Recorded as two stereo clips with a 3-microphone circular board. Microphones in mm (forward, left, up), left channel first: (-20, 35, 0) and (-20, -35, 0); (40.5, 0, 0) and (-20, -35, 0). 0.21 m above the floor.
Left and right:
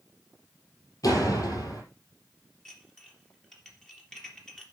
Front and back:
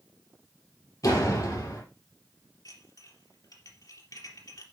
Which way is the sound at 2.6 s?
10° left.